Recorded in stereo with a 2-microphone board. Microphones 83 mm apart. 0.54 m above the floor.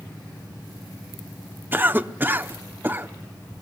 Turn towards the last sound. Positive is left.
turn(degrees=-25)  # may be behind; listen again after turning